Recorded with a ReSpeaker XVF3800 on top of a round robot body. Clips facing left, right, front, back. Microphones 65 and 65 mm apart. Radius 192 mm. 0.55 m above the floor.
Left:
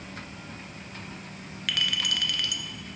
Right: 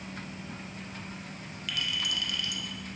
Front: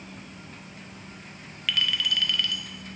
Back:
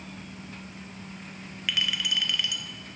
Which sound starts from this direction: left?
A clink, at 1.7 s.